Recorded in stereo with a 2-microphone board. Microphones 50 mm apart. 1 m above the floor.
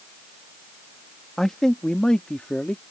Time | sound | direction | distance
1.4 | a man speaking | 10° left (ahead or behind) | ?